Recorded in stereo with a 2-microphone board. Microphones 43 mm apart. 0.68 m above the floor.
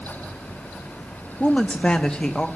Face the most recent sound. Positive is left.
turn(degrees=25)  # may be behind; listen again after turning